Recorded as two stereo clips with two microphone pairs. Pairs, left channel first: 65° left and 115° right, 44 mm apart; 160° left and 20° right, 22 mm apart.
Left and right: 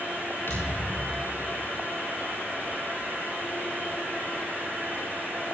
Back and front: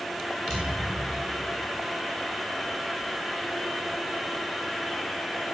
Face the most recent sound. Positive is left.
turn(degrees=90)